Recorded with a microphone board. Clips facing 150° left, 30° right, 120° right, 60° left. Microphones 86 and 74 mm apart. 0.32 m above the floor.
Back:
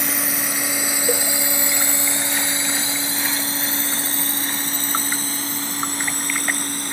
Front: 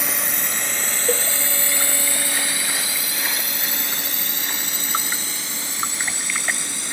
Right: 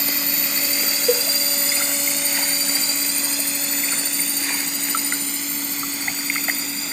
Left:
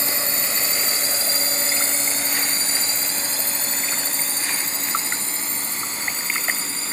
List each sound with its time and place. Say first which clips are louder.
0.0 s a drone: back 2 dB, left 1 dB; 60° left; by 6.9 s 110° left
1.1 s a cowbell: front 1 dB, right 10 dB; 115° right